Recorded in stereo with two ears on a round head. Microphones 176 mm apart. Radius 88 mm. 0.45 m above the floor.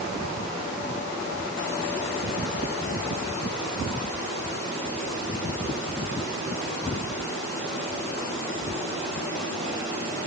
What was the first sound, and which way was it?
Only background noise.